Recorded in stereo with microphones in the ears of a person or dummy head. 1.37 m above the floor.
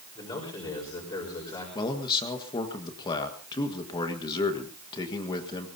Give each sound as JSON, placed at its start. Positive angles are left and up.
{"t": 0.1, "sound": "a man speaking", "side_deg": 25, "distance_m": 4.5}
{"t": 1.8, "sound": "a man speaking", "side_deg": 25, "distance_m": 1.5}